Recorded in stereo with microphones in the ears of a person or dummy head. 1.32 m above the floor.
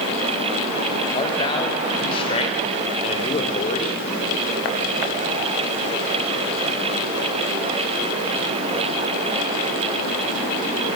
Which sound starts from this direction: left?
A man speaking, at 1.1 s.